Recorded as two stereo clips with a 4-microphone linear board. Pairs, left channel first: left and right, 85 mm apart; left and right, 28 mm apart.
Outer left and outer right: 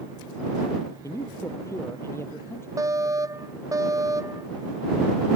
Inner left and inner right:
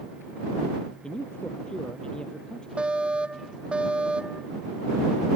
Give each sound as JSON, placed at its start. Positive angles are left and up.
{"t": 1.0, "sound": "a man speaking", "side_deg": 35}
{"t": 2.8, "sound": "a fire alarm", "side_deg": -40}